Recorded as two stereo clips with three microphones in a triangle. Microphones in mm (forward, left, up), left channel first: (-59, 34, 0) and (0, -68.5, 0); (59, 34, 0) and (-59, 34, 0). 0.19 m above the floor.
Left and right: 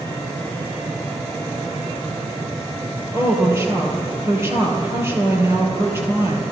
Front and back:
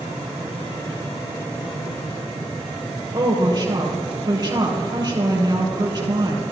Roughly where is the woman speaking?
Behind right.